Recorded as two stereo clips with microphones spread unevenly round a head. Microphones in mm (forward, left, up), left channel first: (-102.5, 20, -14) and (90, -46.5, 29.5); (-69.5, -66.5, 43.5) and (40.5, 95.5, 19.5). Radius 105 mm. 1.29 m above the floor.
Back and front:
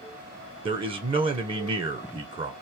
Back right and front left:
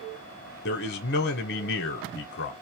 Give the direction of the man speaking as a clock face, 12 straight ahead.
3 o'clock.